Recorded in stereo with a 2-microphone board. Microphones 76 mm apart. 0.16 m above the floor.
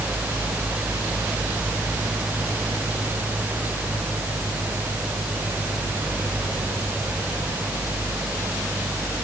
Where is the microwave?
I don't hear a microwave.